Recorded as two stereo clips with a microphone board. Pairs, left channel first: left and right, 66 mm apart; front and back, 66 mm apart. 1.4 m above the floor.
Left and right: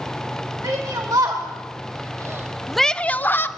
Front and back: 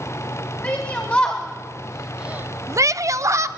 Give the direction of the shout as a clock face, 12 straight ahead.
2 o'clock.